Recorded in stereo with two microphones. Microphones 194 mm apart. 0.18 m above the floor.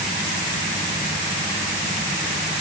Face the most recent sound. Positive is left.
No sound to turn to.